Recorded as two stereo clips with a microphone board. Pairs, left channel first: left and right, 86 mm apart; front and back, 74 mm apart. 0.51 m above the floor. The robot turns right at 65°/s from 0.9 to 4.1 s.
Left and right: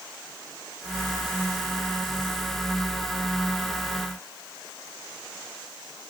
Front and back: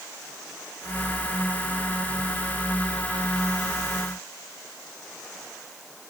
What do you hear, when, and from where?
Only background noise.